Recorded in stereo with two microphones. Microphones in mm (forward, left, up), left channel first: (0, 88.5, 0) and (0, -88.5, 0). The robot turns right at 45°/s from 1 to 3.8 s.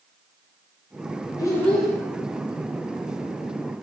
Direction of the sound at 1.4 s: 20° left (ahead or behind).